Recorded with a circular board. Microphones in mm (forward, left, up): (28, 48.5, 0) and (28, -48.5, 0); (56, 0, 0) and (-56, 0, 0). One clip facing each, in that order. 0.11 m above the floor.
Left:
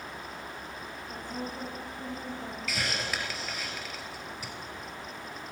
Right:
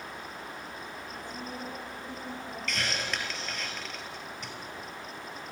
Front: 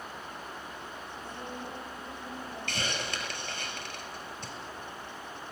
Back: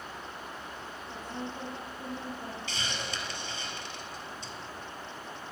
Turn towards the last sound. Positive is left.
turn(degrees=5)